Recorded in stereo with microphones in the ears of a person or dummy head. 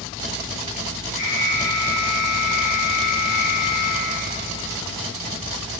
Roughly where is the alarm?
Left.